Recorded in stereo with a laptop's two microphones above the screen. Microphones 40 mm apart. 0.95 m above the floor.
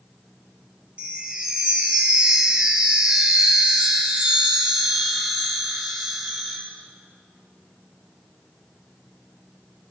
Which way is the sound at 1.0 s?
30° right (ahead or behind).